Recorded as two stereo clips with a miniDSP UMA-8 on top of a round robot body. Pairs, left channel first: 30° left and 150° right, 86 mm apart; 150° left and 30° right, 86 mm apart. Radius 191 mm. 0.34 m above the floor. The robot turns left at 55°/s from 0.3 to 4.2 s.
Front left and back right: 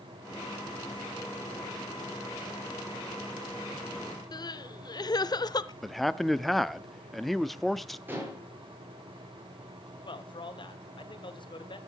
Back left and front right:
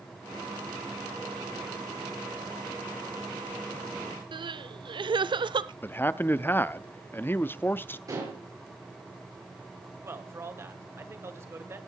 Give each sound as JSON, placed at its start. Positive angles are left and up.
{"t": 4.3, "sound": "crying", "azimuth_deg": -5, "distance_m": 0.8}
{"t": 5.8, "sound": "a man speaking", "azimuth_deg": 120, "distance_m": 0.9}
{"t": 8.1, "sound": "dishes clattering", "azimuth_deg": -80, "distance_m": 6.5}
{"t": 10.0, "sound": "a man speaking", "azimuth_deg": 25, "distance_m": 2.5}